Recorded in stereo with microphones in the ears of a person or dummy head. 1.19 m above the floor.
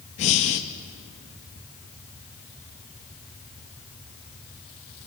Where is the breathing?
40° left (ahead or behind), 0.6 m.